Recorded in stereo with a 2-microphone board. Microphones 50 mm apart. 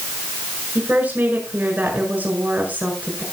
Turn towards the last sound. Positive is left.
turn(degrees=-40)  # may be behind; listen again after turning